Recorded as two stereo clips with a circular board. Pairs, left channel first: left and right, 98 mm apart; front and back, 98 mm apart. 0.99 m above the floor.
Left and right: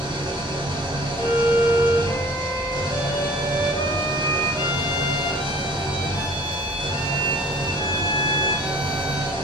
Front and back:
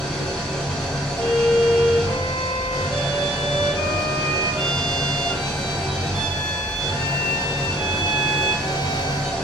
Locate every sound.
0.0 s an engine running: 85° right, 0.7 m
1.2 s a violin: 40° left, 0.8 m